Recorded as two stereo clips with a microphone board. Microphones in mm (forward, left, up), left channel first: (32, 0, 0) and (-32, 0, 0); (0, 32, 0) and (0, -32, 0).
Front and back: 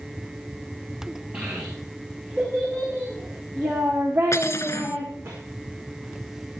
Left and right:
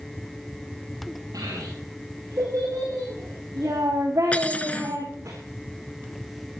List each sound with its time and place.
1.3 s a child speaking: 110° right, 7 m; by 5.3 s 135° right, 7 m
4.3 s cutlery clinking: 25° left, 1.2 m